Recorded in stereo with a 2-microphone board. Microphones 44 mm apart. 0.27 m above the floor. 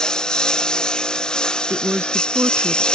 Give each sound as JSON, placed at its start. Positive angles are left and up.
{"t": 0.0, "sound": "a lawn mower", "side_deg": 15}
{"t": 1.7, "sound": "a woman speaking", "side_deg": -70}